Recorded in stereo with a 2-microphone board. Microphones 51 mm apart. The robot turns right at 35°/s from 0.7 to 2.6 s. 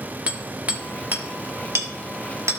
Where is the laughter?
I don't hear laughter.